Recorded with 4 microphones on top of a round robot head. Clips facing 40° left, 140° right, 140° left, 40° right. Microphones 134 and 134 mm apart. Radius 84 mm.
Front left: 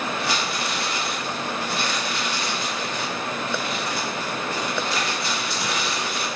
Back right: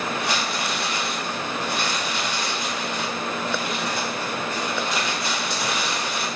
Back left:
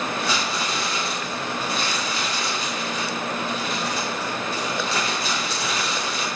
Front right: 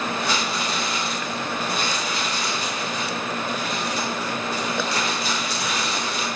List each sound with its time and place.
0.2 s crumpling: 145° left, 3.5 m